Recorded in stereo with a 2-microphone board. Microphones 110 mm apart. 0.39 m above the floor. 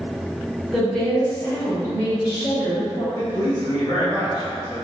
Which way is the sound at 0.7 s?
Centre (ahead or behind).